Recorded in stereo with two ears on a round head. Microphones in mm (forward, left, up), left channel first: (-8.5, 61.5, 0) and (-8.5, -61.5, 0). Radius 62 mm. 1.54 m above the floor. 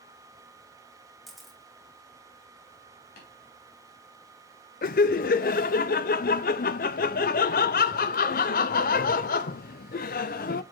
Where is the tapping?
65° left (ahead or behind), 3 m.